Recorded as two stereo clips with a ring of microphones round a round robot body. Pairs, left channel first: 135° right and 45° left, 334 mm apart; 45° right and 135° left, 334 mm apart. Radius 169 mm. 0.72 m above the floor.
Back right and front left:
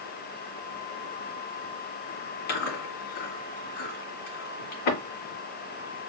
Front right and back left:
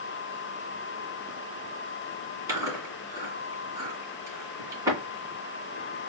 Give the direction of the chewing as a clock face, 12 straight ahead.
5 o'clock.